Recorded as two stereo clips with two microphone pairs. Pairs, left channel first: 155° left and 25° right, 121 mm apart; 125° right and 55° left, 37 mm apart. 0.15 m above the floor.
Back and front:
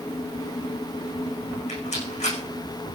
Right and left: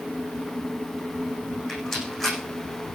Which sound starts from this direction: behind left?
A rattle, at 1.7 s.